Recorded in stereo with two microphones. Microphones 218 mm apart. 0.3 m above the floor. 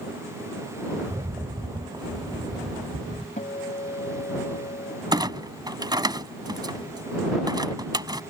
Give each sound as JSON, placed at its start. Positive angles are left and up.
{"t": 1.0, "sound": "a rattle", "side_deg": -20}
{"t": 3.4, "sound": "a guitar", "side_deg": 40}
{"t": 5.1, "sound": "a clunk", "side_deg": -20}